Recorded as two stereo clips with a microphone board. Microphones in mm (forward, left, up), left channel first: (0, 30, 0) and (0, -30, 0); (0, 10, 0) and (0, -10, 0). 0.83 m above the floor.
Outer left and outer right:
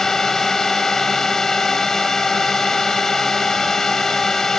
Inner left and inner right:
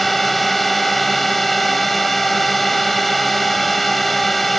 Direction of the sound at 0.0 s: 10° left (ahead or behind).